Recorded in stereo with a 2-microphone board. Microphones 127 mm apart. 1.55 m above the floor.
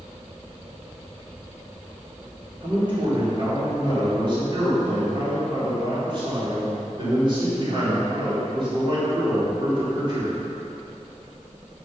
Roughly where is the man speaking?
Right.